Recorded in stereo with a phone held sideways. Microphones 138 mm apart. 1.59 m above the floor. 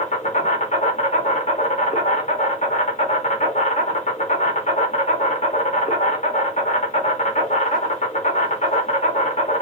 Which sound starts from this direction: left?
An insect, at 0.0 s.